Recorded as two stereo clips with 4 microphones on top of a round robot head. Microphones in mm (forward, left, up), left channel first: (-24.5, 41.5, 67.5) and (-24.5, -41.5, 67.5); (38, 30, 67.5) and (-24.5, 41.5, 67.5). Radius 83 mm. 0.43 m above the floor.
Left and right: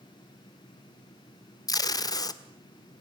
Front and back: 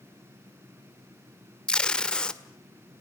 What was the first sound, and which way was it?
Tape being pulled, 65° left.